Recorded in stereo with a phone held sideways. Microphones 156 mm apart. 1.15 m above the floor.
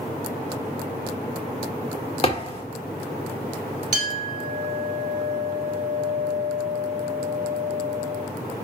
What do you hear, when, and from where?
2.2 s a thud: 35° left (ahead or behind), 1.7 m
3.9 s a clink: 50° right (ahead or behind), 2.0 m